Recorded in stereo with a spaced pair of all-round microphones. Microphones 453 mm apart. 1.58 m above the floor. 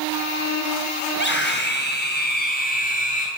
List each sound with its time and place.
1.1 s a scream: 25° left (ahead or behind), 7.5 m; by 3.3 s 15° left (ahead or behind), 7.5 m